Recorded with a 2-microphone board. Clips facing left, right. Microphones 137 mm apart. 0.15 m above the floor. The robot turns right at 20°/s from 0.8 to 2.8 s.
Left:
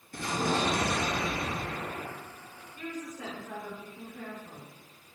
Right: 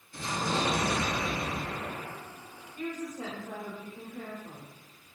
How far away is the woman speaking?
About 1.9 m.